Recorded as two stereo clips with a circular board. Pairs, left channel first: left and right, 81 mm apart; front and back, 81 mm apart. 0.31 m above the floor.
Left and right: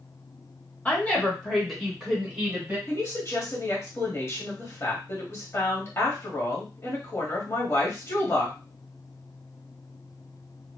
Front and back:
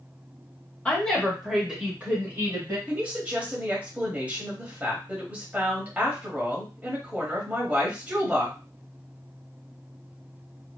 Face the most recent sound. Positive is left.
turn(degrees=120)